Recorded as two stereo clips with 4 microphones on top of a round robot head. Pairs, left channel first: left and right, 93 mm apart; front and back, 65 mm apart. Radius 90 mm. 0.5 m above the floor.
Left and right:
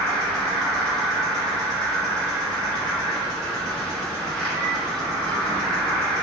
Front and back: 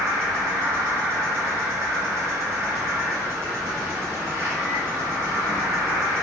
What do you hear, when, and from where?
0.0 s an insect: 170° left, 1.8 m